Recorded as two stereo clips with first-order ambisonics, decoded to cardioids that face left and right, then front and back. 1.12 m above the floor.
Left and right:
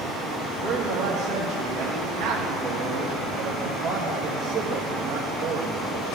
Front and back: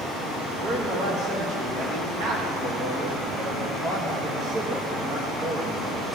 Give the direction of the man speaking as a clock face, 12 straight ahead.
4 o'clock.